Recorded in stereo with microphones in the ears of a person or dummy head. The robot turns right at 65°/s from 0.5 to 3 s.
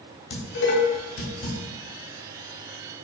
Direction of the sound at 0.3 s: 65° left (ahead or behind).